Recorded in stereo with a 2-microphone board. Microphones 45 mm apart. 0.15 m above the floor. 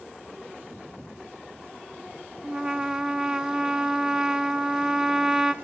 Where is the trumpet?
15° right (ahead or behind), 0.6 m.